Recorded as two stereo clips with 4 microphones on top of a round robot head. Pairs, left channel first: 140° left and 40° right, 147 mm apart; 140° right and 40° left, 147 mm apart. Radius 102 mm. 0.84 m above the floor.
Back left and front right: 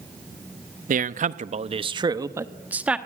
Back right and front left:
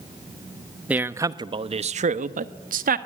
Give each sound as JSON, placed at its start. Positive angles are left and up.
{"t": 0.9, "sound": "a man speaking", "azimuth_deg": -40, "distance_m": 1.0}